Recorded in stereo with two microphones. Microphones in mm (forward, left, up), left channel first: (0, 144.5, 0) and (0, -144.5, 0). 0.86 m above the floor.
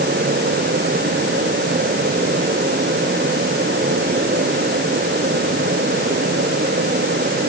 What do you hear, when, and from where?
Only background noise.